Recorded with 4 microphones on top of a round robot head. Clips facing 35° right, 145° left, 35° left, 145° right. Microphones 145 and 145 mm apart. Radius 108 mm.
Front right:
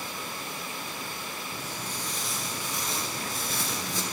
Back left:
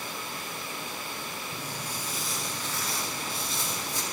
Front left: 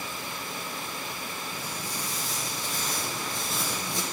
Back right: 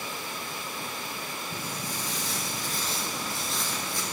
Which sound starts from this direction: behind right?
Footsteps, at 1.5 s.